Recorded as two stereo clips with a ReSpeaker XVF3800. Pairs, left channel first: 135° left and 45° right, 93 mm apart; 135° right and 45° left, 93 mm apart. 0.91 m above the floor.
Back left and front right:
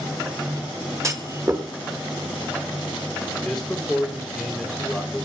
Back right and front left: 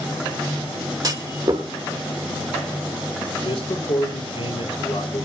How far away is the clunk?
About 1.5 m.